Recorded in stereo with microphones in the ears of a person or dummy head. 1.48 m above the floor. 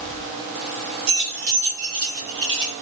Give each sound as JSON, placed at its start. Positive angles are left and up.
{"t": 1.1, "sound": "keys jangling", "side_deg": -65, "distance_m": 1.3}